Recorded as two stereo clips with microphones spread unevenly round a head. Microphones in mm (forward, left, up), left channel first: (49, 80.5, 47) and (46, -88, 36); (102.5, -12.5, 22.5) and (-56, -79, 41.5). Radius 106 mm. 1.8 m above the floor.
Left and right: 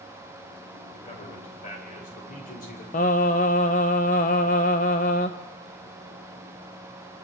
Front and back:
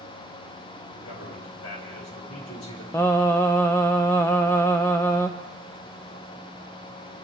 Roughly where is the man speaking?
Ahead left.